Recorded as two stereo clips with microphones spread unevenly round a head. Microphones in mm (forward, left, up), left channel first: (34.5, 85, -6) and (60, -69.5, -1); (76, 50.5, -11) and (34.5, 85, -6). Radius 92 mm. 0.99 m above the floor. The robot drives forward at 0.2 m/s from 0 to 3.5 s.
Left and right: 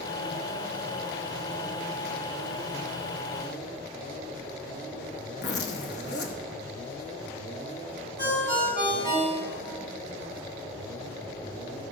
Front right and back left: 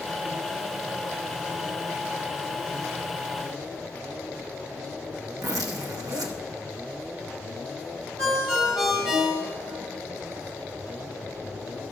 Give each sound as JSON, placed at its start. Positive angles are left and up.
{"t": 5.4, "sound": "a zipper", "azimuth_deg": 135, "distance_m": 0.9}
{"t": 8.2, "sound": "a ringtone", "azimuth_deg": -135, "distance_m": 4.5}